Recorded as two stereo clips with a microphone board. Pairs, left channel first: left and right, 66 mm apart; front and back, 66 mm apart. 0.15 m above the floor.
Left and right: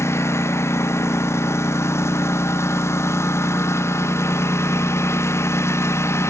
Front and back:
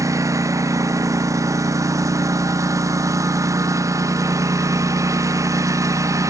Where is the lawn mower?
140° left.